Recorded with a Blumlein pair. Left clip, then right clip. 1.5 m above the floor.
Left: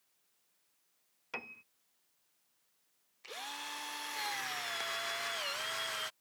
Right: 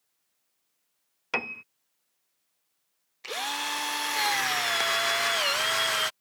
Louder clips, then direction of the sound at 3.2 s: Right 12 dB; 60° right.